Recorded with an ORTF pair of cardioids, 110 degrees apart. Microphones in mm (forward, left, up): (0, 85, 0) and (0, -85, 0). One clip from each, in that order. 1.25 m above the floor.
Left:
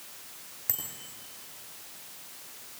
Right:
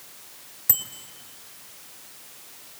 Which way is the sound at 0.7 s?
35° right.